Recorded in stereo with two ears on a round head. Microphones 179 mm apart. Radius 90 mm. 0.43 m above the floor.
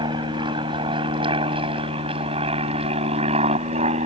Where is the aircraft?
25° right (ahead or behind); by 4.1 s 30° right (ahead or behind).